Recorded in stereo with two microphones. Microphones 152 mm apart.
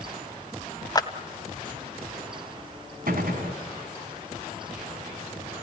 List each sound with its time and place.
0.9 s a clap: 25° left (ahead or behind), 1.6 m
3.1 s a gunshot: 75° right (ahead or behind), 4 m